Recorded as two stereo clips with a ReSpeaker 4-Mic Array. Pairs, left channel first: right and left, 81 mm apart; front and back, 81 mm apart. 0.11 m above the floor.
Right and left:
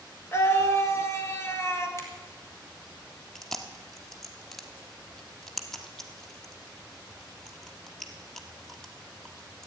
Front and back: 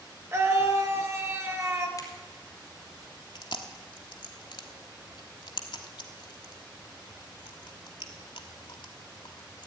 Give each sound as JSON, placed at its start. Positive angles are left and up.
{"t": 0.3, "sound": "a scream", "azimuth_deg": -135, "distance_m": 1.8}
{"t": 2.0, "sound": "a finger snap", "azimuth_deg": -35, "distance_m": 2.5}
{"t": 3.4, "sound": "chewing", "azimuth_deg": -5, "distance_m": 1.2}